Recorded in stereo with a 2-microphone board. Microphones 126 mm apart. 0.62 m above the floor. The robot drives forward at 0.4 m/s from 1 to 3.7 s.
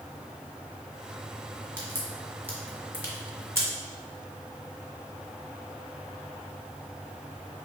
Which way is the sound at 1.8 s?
15° right (ahead or behind).